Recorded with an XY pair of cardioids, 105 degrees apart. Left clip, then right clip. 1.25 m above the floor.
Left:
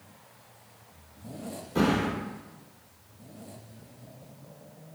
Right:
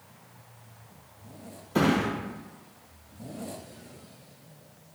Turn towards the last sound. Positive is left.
turn(degrees=-50)